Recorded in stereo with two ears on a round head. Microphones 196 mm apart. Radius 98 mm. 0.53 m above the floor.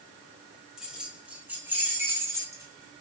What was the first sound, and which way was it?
Keys jangling, 5° right (ahead or behind).